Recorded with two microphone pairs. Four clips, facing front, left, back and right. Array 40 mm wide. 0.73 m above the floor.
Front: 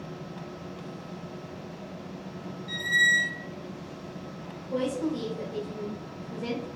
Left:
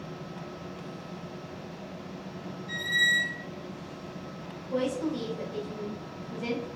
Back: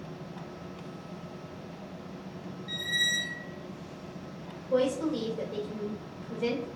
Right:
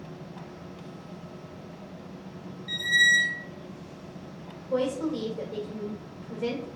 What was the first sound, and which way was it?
A squeak, 90° right.